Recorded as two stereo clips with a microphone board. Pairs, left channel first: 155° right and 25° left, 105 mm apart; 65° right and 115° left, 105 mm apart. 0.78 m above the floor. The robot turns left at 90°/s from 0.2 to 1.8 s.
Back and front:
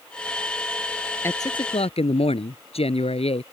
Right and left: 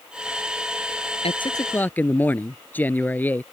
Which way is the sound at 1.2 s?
90° right.